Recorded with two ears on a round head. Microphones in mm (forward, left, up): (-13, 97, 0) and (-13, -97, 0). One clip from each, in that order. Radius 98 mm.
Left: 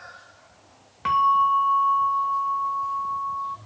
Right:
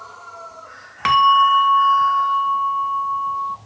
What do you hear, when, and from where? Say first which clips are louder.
1.1 s a bell: right 6 dB; 55° right (ahead or behind), 0.6 m